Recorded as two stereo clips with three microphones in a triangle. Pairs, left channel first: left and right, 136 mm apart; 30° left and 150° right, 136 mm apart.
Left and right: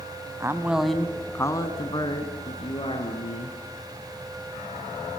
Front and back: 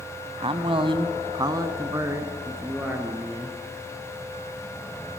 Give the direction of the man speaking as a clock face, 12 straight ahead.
5 o'clock.